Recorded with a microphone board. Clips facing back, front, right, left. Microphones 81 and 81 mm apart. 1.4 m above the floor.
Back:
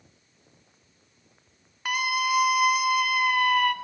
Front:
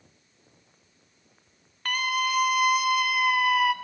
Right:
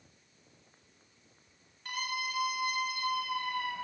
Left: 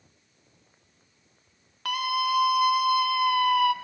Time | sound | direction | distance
1.9 | a scream | 100° left | 2.5 m